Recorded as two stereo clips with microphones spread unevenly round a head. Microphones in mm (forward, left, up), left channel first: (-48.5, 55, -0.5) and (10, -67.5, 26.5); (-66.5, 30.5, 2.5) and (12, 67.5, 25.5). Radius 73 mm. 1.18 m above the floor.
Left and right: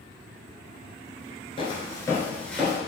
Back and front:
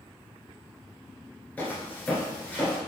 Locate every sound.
1.6 s footsteps: 125° left, 1.2 m; by 2.8 s 45° right, 1.1 m